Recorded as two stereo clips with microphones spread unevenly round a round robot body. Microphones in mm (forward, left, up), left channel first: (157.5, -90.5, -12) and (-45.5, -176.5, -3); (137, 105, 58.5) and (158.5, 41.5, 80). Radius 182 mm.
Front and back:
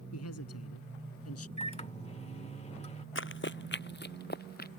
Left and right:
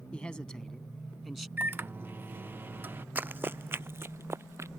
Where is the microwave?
5° left.